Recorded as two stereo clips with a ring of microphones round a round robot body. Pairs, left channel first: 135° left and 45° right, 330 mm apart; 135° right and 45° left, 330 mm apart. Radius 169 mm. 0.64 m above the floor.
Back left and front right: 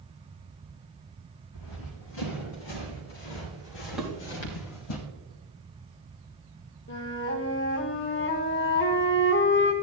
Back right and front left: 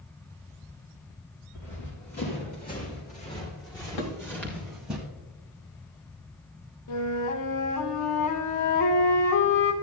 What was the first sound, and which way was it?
Running footsteps, 170° left.